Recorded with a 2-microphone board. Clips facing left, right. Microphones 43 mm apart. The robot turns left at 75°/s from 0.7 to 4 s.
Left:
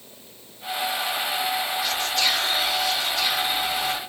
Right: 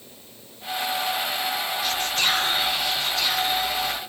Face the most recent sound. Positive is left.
turn(degrees=125)